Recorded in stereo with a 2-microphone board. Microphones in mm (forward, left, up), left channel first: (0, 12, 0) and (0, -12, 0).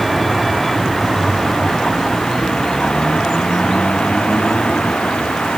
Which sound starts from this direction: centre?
A vehicle, at 0.0 s.